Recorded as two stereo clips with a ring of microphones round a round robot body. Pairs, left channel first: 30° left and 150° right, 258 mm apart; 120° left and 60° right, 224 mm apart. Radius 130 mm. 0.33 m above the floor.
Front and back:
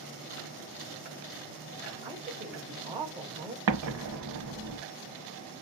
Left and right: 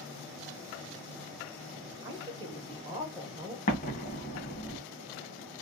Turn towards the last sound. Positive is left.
turn(degrees=180)